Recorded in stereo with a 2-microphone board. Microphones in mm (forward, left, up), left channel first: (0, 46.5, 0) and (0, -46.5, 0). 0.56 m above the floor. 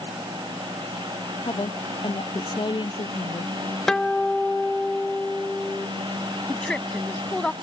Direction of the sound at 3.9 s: 5° left (ahead or behind).